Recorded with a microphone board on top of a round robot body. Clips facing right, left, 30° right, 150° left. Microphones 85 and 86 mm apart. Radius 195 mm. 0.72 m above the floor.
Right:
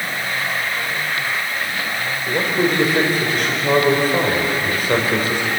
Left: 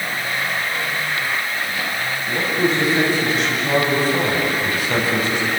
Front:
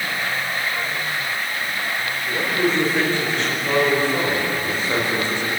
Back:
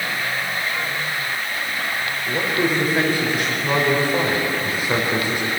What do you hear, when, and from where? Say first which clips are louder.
2.3 s a man speaking: right 1 dB, even; 130° right, 4.5 m